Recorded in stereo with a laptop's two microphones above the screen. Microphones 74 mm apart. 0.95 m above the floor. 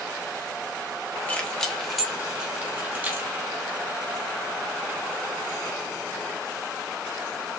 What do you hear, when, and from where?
1.3 s keys jangling: 20° left (ahead or behind), 1.0 m; by 3.3 s 25° right (ahead or behind), 1.4 m